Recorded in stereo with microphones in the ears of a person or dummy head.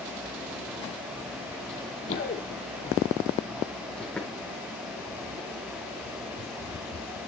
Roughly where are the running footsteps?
Left.